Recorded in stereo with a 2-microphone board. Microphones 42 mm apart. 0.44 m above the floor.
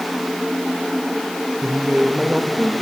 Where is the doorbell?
No doorbell in this recording.